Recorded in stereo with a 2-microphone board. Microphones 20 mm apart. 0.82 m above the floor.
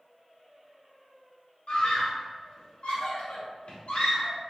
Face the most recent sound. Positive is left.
turn(degrees=75)  # may be behind; listen again after turning